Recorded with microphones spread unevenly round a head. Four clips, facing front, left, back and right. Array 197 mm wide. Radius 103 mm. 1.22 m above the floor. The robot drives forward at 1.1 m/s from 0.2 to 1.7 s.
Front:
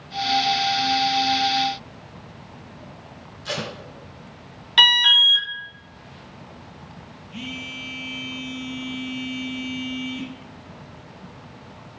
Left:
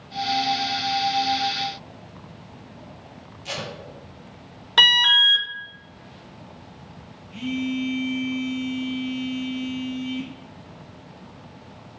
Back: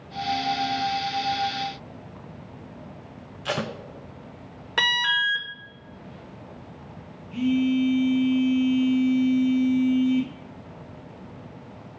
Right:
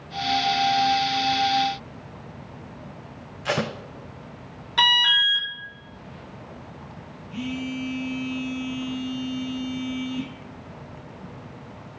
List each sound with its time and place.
3.5 s tape being pulled: 110° right, 0.6 m
4.8 s an alarm: 140° left, 0.8 m
7.3 s a phone buzzing: 145° right, 2.5 m